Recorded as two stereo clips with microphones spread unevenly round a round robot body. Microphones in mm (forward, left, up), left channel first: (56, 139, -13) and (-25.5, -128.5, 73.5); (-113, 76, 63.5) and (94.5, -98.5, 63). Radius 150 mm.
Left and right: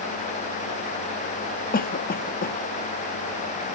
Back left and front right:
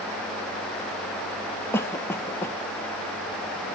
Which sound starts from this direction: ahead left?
A cough, at 1.7 s.